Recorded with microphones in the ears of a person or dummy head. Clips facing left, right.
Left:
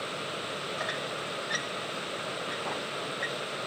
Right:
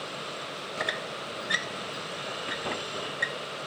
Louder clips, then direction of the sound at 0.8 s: Even; 25° right (ahead or behind).